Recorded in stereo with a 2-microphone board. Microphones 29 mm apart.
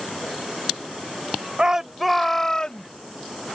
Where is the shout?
25° right (ahead or behind); by 2.9 s 35° left (ahead or behind).